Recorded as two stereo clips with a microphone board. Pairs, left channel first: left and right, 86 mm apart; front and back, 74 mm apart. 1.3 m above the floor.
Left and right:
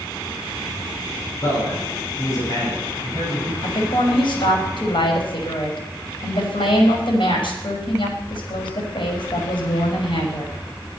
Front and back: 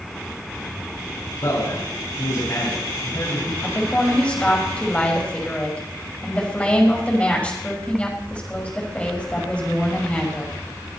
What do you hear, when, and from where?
1.4 s a man speaking: 40° left, 8.5 m
3.6 s a woman speaking: 70° left, 5.5 m